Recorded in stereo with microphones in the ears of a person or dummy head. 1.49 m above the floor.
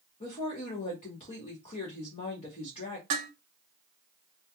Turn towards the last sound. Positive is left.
turn(degrees=-20)  # may be behind; listen again after turning